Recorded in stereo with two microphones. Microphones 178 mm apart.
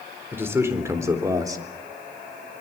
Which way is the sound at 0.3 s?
10° right (ahead or behind).